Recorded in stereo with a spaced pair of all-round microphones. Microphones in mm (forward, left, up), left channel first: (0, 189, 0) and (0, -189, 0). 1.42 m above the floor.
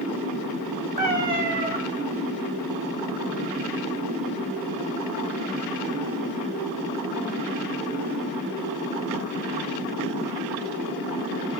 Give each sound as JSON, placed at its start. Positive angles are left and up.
{"t": 1.0, "sound": "a cat meowing", "side_deg": -25, "distance_m": 1.3}